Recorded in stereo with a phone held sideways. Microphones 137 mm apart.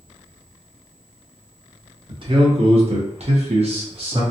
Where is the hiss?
I don't hear a hiss.